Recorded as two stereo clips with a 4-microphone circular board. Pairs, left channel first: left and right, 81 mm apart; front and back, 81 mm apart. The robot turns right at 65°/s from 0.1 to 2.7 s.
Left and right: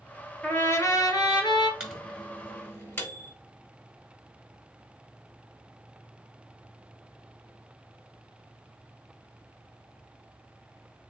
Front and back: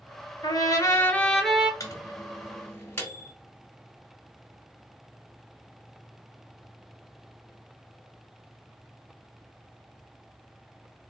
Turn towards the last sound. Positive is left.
turn(degrees=50)